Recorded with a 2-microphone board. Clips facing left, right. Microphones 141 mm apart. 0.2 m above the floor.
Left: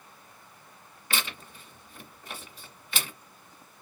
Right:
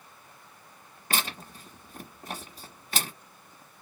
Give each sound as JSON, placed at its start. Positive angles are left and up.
{"t": 1.1, "sound": "tearing paper", "side_deg": -40, "distance_m": 1.3}